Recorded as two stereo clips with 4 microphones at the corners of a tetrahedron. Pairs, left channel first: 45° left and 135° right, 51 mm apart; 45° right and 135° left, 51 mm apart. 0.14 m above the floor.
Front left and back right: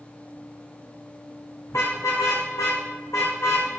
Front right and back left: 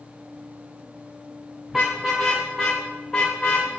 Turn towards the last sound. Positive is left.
turn(degrees=30)